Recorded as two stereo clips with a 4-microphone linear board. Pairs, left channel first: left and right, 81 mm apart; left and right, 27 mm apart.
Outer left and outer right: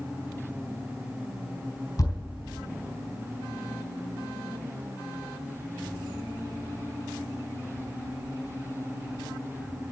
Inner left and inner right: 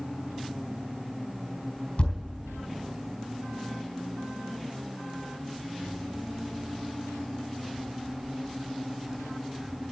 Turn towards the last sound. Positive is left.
turn(degrees=45)  # may be behind; listen again after turning